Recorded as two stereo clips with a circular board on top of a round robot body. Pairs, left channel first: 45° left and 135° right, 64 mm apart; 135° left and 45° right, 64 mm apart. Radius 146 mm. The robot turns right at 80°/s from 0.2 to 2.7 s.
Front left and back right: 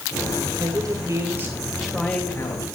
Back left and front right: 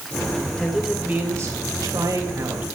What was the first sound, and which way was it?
A man speaking, 145° right.